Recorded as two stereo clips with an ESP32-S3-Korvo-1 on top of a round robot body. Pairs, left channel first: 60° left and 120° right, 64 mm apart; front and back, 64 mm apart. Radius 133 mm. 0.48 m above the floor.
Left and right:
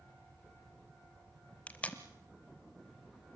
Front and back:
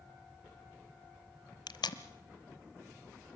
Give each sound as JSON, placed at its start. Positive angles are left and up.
{"t": 1.7, "sound": "tape being pulled", "azimuth_deg": -10, "distance_m": 0.9}